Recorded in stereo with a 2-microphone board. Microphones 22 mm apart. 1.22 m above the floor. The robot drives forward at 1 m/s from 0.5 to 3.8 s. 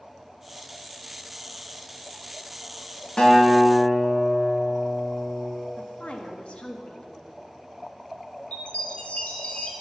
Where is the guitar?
35° left (ahead or behind), 2 m; by 5.5 s 25° left (ahead or behind), 2.5 m.